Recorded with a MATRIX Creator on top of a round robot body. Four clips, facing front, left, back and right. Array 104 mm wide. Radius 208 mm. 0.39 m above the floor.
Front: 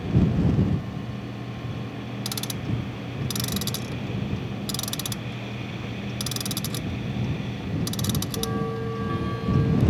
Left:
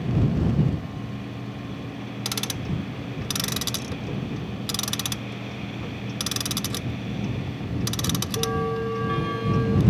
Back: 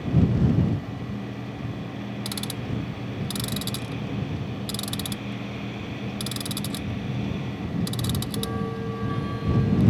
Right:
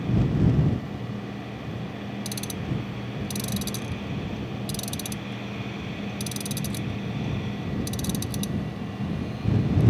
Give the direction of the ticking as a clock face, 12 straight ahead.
9 o'clock.